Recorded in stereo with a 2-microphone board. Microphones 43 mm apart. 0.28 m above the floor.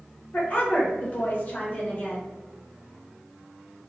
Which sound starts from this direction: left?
A woman speaking, at 0.3 s.